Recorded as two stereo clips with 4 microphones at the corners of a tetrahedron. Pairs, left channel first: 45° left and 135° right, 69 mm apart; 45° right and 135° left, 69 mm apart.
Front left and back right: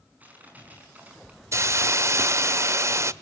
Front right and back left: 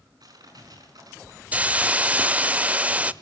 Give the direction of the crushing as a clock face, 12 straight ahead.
7 o'clock.